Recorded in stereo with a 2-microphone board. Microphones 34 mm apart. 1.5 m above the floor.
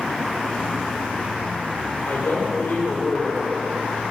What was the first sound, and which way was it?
A woman speaking, 80° left.